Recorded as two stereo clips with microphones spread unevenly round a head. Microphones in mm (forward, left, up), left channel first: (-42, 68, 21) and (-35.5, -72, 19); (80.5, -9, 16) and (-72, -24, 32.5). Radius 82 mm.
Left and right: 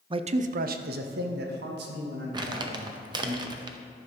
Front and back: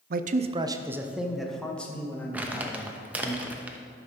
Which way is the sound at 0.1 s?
145° right.